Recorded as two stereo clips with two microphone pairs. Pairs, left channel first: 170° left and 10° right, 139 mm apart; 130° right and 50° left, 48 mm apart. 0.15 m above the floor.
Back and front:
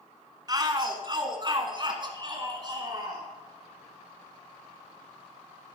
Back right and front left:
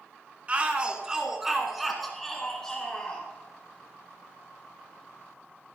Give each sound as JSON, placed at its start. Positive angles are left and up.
{"t": 0.5, "sound": "a shout", "azimuth_deg": 15, "distance_m": 1.3}